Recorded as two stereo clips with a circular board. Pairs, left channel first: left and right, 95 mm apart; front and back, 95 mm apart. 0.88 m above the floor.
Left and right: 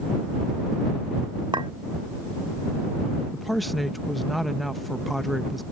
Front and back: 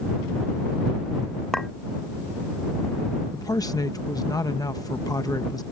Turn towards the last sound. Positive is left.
turn(degrees=0)